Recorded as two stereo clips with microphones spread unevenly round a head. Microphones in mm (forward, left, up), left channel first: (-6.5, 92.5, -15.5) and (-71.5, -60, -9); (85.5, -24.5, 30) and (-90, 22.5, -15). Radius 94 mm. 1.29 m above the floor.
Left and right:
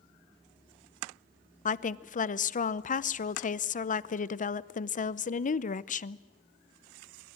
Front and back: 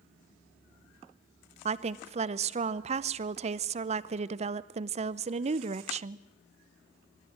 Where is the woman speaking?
110° left, 0.7 m.